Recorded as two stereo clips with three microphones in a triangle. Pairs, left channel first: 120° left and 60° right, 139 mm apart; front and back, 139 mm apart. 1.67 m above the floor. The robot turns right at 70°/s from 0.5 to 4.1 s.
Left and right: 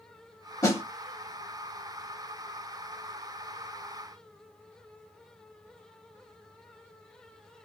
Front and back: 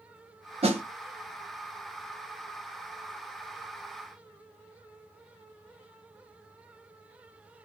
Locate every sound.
0.6 s a snare drum: 175° left, 1.0 m; by 0.8 s 170° right, 1.0 m